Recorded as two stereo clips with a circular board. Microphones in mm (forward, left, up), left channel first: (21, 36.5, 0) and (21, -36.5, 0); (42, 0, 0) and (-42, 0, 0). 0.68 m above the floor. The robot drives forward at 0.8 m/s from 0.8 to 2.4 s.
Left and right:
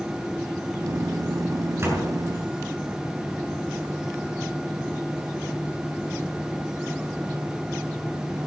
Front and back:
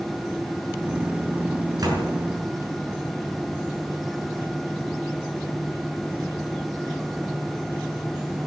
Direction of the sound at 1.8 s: 140° right.